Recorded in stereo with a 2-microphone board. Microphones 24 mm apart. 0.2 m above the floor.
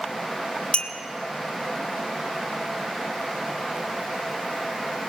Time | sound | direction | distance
0.7 | a clink | 50° left (ahead or behind) | 1.5 m